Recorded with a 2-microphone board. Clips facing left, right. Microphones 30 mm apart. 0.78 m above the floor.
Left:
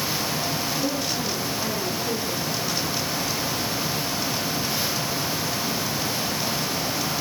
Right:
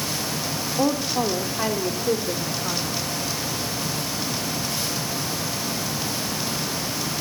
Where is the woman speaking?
70° right (ahead or behind), 1.6 m; by 3.0 s 25° right (ahead or behind), 2 m.